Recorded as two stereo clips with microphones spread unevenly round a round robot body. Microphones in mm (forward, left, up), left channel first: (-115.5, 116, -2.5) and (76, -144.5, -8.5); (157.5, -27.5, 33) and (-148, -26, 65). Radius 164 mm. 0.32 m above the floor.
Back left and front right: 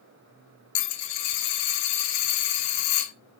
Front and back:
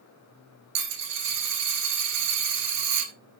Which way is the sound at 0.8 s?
135° left.